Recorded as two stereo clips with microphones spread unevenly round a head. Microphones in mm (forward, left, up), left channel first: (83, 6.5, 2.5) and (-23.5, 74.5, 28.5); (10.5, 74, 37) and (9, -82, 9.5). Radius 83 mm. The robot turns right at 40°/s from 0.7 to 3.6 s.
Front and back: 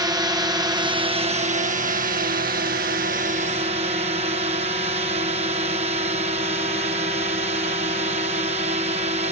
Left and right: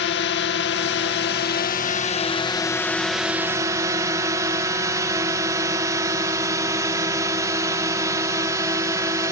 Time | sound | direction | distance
0.0 | a drone | 85° left | ?